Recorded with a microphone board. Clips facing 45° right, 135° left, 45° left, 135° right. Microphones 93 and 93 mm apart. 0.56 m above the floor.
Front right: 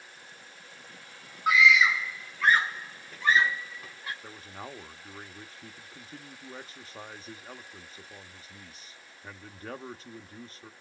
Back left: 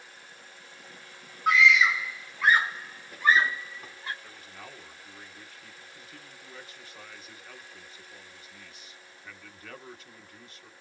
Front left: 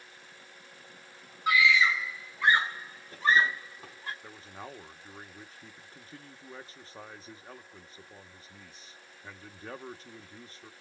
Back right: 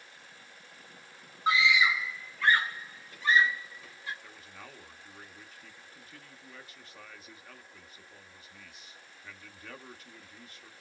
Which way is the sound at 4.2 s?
Straight ahead.